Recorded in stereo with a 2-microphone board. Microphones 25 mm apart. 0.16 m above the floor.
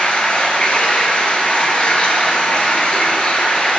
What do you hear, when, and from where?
0.0 s running water: 55° left (ahead or behind), 0.9 m